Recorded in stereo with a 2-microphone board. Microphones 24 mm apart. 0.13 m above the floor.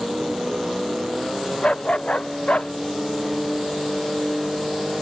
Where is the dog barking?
45° left (ahead or behind); by 2.7 s 65° left (ahead or behind).